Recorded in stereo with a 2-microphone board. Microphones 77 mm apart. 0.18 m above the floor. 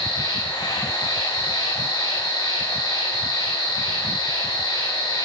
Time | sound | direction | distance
0.0 | an insect | 65° left (ahead or behind) | 5.5 m